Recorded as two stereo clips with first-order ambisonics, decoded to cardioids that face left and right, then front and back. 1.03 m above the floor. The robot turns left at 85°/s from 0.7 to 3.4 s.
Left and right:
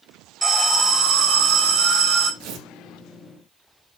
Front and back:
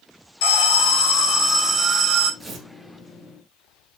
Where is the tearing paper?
105° right, 2.5 m; by 2.7 s 130° right, 2.5 m.